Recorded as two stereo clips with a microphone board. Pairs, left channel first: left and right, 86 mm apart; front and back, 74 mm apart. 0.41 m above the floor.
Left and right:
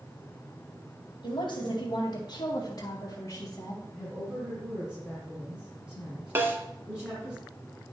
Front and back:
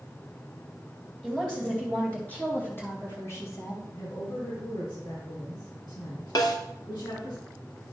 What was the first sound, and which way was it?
A woman speaking, 85° left.